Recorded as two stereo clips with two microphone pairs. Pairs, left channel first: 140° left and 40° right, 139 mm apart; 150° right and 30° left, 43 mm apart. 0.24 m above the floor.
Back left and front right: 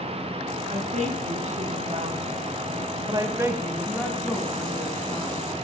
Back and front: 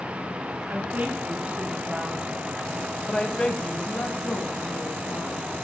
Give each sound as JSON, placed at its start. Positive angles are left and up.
{"t": 0.7, "sound": "a woman speaking", "azimuth_deg": -10, "distance_m": 3.0}